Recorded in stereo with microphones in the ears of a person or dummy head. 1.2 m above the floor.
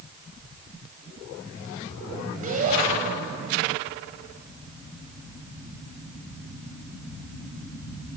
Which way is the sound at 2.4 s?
40° right (ahead or behind).